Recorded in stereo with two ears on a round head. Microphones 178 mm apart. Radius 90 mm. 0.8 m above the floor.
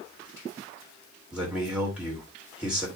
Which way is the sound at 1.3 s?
5° right (ahead or behind).